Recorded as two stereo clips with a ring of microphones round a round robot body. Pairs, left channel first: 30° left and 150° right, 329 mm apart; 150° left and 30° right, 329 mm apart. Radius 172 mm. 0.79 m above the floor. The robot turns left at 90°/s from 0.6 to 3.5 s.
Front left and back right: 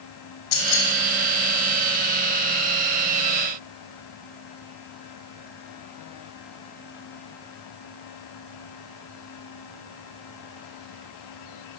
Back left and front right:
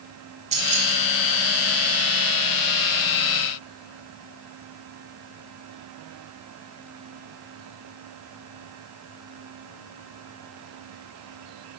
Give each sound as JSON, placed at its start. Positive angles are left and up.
{"t": 0.5, "sound": "keys jangling", "azimuth_deg": 40, "distance_m": 1.2}